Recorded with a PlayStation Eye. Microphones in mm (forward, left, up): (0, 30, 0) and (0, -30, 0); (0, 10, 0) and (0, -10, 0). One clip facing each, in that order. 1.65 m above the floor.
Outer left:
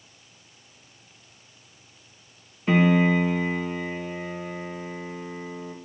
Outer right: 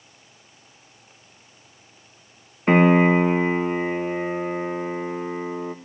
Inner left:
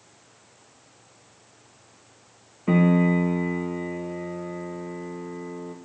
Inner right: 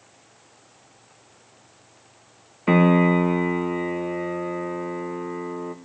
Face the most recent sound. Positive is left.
turn(degrees=-40)  # may be behind; listen again after turning